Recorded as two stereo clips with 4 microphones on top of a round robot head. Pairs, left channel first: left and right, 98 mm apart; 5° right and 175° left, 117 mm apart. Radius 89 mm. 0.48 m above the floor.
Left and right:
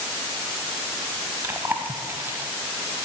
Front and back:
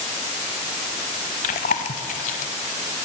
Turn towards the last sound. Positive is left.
turn(degrees=-15)